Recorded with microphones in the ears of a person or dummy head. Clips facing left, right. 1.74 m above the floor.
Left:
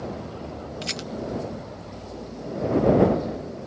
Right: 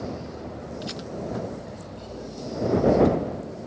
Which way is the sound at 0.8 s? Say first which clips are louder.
Even; 45° left (ahead or behind).